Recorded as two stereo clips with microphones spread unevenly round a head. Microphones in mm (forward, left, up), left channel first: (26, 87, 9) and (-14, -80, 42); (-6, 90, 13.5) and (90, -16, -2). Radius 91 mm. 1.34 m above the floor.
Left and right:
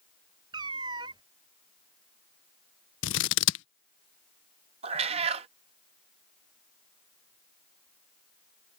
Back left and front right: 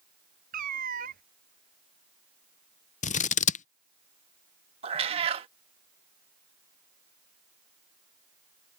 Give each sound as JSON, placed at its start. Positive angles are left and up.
{"t": 0.5, "sound": "a cat meowing", "azimuth_deg": -55}
{"t": 3.0, "sound": "scissors", "azimuth_deg": 95}
{"t": 4.8, "sound": "a cat meowing", "azimuth_deg": -90}